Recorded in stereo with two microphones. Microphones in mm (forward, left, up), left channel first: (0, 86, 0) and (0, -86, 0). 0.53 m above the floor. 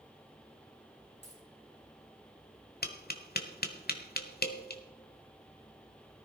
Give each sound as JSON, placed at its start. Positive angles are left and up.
{"t": 1.2, "sound": "a dropped coin", "side_deg": 85, "distance_m": 5.0}
{"t": 2.8, "sound": "tapping", "side_deg": 65, "distance_m": 1.2}